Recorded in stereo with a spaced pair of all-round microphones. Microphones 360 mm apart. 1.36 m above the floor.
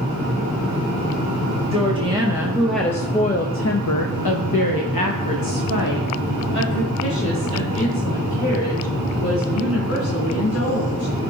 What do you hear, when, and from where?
1.7 s a woman speaking: 15° right (ahead or behind), 1.4 m; by 11.1 s 45° left (ahead or behind), 5 m